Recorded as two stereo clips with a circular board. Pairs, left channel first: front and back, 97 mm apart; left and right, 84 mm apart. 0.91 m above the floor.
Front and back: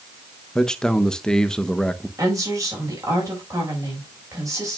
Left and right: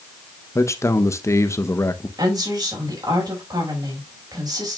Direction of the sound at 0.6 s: 75° left.